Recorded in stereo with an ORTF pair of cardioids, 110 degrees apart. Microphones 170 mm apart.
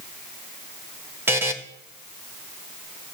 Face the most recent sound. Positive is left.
turn(degrees=-15)